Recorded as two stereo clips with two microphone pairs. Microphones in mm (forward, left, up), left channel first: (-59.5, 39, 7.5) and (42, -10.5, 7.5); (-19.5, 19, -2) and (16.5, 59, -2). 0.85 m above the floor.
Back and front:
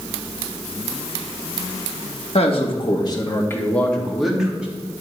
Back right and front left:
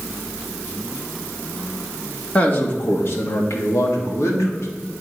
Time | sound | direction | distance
2.4 | a man speaking | 170° left | 1.4 m